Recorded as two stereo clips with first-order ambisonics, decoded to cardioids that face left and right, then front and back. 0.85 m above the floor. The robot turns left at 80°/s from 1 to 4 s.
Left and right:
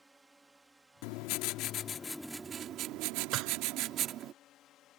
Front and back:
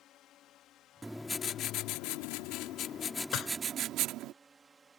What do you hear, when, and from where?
0.0 s a drone: 10° right; by 5.0 s 110° left
1.0 s writing: 100° left; by 4.3 s 140° right
3.3 s dishes clattering: 45° right; by 3.5 s 60° right